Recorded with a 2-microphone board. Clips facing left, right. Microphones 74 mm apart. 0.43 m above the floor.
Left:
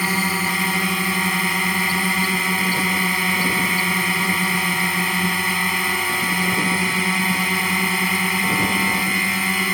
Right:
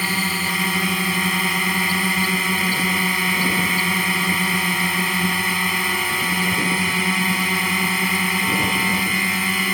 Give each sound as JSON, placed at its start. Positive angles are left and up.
{"t": 0.0, "sound": "a drone", "side_deg": 15}